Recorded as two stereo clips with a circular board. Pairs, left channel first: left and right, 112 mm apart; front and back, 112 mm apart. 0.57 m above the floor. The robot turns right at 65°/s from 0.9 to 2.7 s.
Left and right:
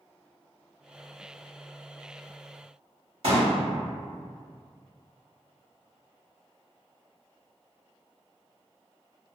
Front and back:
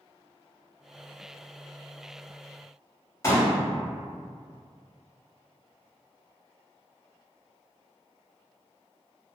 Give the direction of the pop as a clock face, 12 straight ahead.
2 o'clock.